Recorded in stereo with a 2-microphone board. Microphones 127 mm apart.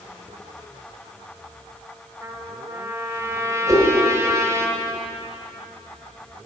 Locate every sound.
2.2 s a trumpet: 25° right (ahead or behind), 1.2 m
3.7 s a whoosh: 25° right (ahead or behind), 4 m